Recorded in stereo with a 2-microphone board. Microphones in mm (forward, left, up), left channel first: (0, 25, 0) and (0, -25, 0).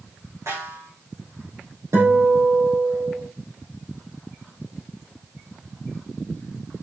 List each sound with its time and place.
0.5 s a snare drum: 80° right, 6.5 m
1.9 s a guitar: 70° right (ahead or behind), 5.5 m